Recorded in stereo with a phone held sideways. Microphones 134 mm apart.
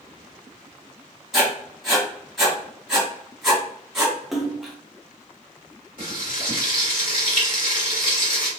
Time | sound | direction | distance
1.3 | writing | centre (ahead or behind) | 1.3 m
4.3 | a splash | centre (ahead or behind) | 0.6 m
6.0 | frying | 80° left | 1.7 m